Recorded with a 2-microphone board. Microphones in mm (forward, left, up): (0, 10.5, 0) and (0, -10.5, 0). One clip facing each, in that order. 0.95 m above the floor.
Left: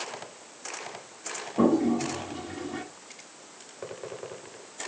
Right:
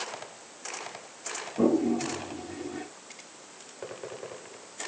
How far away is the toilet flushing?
About 5.5 m.